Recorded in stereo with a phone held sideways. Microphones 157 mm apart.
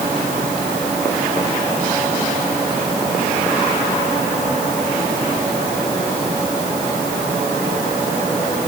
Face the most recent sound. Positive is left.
No sound to turn to.